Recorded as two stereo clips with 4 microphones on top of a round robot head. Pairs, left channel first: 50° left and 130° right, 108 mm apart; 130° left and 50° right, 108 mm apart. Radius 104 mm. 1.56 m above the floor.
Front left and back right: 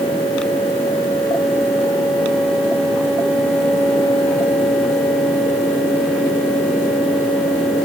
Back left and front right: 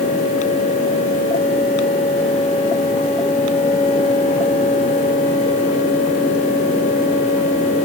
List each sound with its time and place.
Only background noise.